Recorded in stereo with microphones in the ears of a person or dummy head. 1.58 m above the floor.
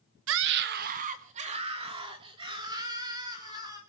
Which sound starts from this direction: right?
A scream, at 0.3 s.